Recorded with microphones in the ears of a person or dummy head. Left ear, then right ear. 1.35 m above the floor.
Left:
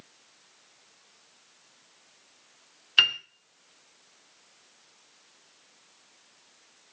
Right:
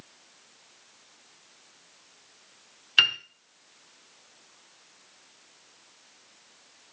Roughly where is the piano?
Centre.